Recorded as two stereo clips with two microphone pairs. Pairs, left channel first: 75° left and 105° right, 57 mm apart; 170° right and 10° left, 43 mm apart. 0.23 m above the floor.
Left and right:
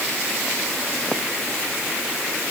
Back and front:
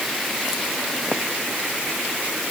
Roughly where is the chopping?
I don't hear chopping.